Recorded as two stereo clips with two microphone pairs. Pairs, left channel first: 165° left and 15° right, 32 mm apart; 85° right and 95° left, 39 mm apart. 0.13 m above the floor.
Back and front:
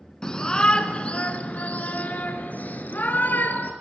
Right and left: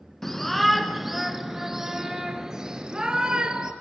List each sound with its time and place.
0.2 s a shout: 155° right, 1.7 m; by 3.7 s 160° left, 3 m